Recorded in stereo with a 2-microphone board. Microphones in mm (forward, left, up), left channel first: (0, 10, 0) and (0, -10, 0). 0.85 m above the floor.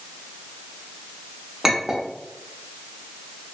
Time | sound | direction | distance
1.6 | a clink | 15° right (ahead or behind) | 0.6 m